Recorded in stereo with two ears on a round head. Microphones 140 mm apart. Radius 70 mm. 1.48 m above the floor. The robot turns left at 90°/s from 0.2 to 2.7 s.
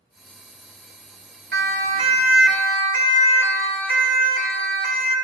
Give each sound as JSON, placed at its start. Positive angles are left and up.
{"t": 1.5, "sound": "a siren", "side_deg": -75, "distance_m": 6.5}